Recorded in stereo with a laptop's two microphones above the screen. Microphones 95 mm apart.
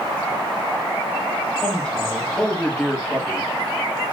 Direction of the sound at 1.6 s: 10° left (ahead or behind).